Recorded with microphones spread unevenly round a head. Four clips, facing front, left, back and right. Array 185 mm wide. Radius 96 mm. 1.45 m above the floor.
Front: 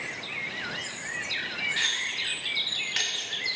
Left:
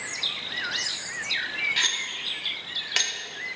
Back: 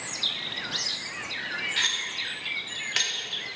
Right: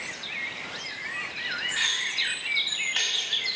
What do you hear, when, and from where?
1.8 s cutlery clinking: 95° left, 2.5 m